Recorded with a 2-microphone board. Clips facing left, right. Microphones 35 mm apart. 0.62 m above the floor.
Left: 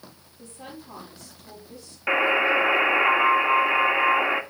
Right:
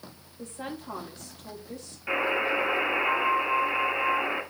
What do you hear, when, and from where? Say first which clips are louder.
0.4 s a woman speaking: right 4 dB; 55° right (ahead or behind), 3.5 m
2.1 s a buzzer: left 6 dB; 40° left (ahead or behind), 1.2 m